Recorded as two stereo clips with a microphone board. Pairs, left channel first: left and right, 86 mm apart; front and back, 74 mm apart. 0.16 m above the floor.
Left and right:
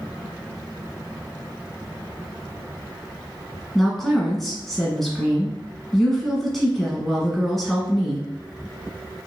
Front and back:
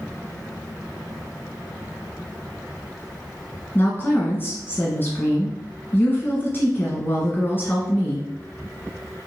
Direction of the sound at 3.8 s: 5° left.